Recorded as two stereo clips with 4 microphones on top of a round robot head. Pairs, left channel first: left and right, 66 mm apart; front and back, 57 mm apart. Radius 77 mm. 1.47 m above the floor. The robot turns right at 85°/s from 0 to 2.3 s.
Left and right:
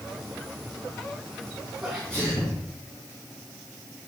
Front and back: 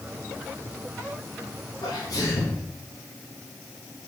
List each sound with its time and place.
1.8 s a sneeze: 20° right, 2.5 m; by 2.6 s 20° left, 2.5 m